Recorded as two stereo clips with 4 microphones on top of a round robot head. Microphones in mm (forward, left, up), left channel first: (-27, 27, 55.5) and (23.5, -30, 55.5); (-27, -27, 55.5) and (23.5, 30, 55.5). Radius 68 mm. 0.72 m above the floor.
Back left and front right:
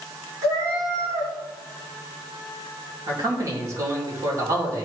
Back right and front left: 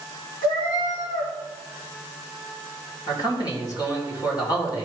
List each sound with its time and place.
0.4 s a cat meowing: 95° right, 3.5 m
3.1 s a man speaking: 95° right, 3 m